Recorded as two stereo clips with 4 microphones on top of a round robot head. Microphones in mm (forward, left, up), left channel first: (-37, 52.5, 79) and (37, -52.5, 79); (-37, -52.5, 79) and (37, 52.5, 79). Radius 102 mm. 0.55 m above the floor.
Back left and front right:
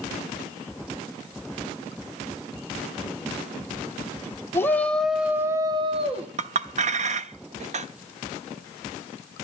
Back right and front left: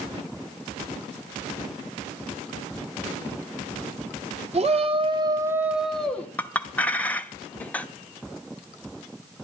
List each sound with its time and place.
4.5 s a shout: 60° left, 2 m; by 6.3 s 50° right, 1.9 m
6.4 s a clink: 50° right, 1.1 m